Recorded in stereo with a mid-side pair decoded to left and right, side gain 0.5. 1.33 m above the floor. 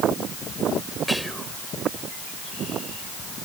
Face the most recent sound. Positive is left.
turn(degrees=0)